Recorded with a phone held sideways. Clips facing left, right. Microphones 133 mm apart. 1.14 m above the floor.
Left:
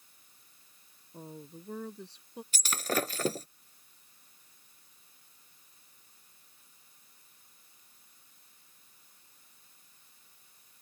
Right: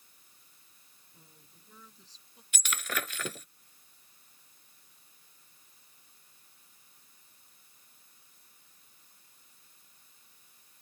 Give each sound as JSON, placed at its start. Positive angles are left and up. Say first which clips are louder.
{"t": 1.1, "sound": "a woman speaking", "louder": "left 19 dB", "side_deg": 65}
{"t": 2.5, "sound": "breaking glass", "louder": "left 5 dB", "side_deg": 35}